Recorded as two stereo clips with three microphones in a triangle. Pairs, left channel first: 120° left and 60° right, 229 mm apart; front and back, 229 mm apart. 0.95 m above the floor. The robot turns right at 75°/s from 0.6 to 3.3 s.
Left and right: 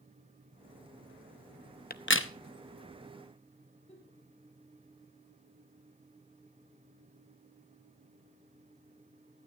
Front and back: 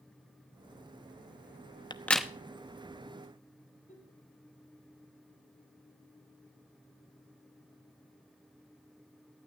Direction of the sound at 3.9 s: 60° left.